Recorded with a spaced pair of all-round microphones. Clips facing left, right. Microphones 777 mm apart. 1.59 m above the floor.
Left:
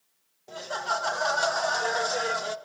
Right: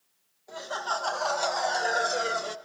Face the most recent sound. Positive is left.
turn(degrees=25)  # may be behind; listen again after turning